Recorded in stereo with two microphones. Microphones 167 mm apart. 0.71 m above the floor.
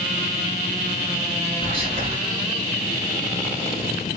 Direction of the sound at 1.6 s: 35° right (ahead or behind).